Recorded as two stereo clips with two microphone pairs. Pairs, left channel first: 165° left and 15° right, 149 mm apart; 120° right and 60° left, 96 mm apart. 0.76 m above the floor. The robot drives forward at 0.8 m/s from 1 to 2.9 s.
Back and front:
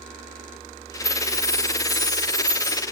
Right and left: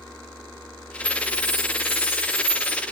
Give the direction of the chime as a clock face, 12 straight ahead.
4 o'clock.